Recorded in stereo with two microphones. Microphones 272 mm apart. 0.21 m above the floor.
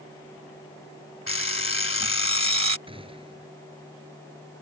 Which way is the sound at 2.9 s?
20° right (ahead or behind).